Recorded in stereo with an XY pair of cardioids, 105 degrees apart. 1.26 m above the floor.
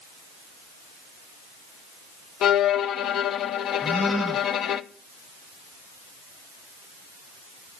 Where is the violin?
70° left, 0.5 m.